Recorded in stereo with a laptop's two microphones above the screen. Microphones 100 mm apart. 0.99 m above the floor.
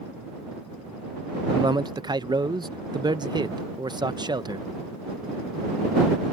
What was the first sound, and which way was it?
A man speaking, 45° right (ahead or behind).